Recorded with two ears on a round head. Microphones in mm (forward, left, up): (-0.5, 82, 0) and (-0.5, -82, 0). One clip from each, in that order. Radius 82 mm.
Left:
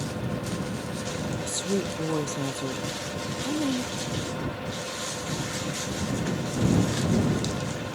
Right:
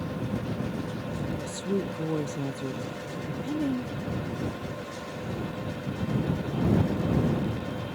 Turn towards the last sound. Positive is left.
turn(degrees=45)  # may be behind; listen again after turning